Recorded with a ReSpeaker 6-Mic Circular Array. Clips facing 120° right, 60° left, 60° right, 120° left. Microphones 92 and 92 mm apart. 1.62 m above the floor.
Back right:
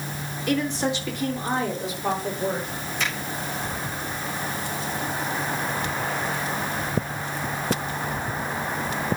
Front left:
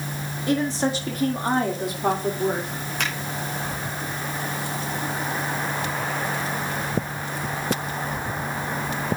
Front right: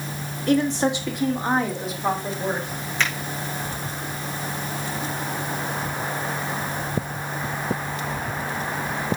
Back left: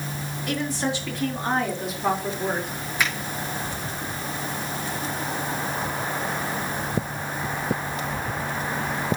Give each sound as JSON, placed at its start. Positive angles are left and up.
{"t": 0.5, "sound": "a woman speaking", "azimuth_deg": 0, "distance_m": 3.5}
{"t": 3.0, "sound": "a finger snap", "azimuth_deg": 40, "distance_m": 6.0}